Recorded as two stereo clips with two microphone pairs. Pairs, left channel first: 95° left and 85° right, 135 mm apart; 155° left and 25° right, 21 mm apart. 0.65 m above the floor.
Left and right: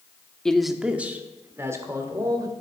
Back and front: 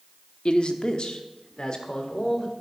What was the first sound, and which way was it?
A man speaking, 175° left.